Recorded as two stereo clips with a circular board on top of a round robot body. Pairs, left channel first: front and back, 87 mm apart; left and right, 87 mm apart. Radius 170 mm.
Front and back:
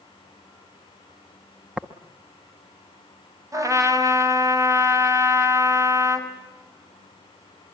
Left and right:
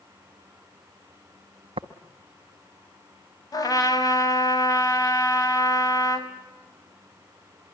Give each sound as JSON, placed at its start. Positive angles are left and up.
{"t": 1.8, "sound": "tapping", "azimuth_deg": -100, "distance_m": 1.0}
{"t": 3.5, "sound": "a trumpet", "azimuth_deg": 130, "distance_m": 4.0}